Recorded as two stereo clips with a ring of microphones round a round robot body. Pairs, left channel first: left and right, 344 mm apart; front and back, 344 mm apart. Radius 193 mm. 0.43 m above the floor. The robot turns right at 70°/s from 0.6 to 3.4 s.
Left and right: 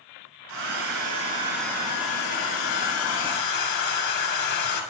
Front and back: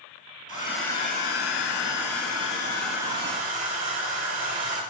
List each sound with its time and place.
0.5 s a hair dryer: 70° right, 3 m; by 4.8 s 125° left, 3 m